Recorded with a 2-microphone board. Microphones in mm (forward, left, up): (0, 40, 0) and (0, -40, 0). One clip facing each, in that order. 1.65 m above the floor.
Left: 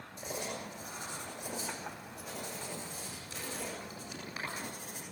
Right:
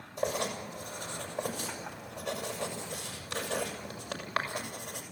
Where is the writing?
75° right (ahead or behind), 6 m.